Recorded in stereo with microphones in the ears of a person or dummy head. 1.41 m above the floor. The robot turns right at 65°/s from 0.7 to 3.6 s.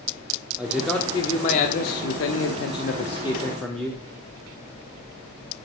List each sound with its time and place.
0.6 s a man speaking: 10° right, 0.7 m; by 4.0 s straight behind, 0.7 m